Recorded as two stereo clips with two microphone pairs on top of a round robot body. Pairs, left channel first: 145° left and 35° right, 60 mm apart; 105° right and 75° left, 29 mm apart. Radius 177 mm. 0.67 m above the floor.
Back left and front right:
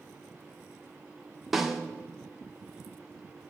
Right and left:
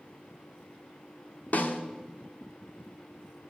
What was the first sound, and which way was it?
A snare drum, 125° right.